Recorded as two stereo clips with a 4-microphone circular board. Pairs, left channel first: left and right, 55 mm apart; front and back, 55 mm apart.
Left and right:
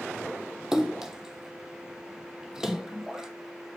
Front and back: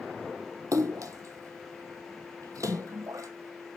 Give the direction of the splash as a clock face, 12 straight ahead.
6 o'clock.